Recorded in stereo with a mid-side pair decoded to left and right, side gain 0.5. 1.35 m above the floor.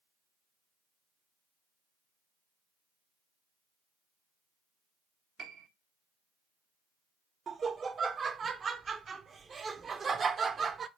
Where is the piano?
50° right, 0.6 m.